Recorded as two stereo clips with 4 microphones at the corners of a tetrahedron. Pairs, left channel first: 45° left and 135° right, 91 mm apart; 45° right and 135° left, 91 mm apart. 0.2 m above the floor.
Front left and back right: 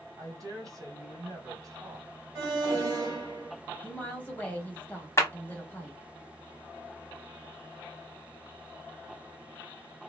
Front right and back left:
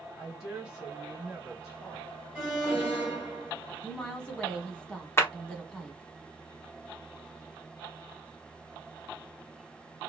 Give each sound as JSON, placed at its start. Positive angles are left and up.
{"t": 0.2, "sound": "a woman speaking", "azimuth_deg": -150, "distance_m": 1.6}
{"t": 2.4, "sound": "an alarm", "azimuth_deg": -155, "distance_m": 1.5}
{"t": 3.8, "sound": "a woman speaking", "azimuth_deg": 15, "distance_m": 1.0}
{"t": 5.2, "sound": "a clap", "azimuth_deg": 5, "distance_m": 0.9}